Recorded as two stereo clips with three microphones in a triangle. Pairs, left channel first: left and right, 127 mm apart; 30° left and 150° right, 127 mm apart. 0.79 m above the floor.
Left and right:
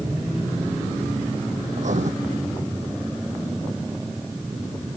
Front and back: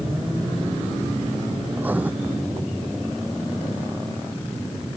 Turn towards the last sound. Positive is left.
turn(degrees=-75)